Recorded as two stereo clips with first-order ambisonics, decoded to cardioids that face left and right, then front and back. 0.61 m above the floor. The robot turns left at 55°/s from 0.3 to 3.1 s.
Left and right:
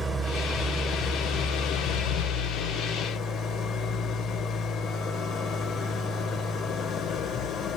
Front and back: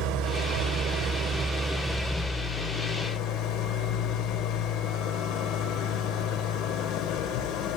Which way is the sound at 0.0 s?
175° right.